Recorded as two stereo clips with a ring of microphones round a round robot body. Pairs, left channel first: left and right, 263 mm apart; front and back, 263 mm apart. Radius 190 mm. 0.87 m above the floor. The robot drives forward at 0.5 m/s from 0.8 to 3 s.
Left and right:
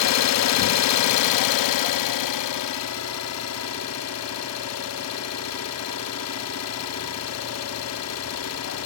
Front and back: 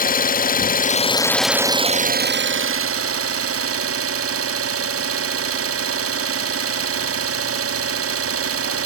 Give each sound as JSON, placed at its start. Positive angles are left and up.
{"t": 0.0, "sound": "an engine running", "azimuth_deg": 65, "distance_m": 0.7}